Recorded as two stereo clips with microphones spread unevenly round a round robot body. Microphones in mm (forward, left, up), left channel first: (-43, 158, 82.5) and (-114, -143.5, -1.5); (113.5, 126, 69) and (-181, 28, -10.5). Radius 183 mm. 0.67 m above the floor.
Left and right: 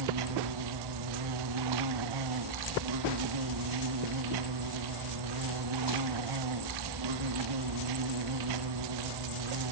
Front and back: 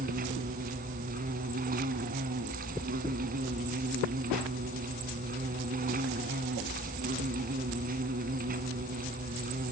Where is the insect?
85° right, 0.8 m.